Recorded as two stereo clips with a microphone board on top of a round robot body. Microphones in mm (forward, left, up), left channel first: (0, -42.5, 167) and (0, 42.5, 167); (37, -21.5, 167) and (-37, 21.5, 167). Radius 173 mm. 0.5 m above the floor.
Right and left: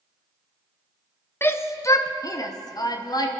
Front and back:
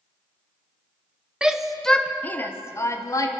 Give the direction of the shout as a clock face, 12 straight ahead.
5 o'clock.